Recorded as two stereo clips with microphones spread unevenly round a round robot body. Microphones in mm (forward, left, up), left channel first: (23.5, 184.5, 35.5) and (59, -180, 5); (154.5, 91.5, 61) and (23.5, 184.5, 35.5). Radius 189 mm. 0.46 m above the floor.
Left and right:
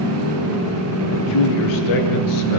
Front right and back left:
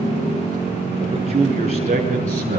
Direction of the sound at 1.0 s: 95° left.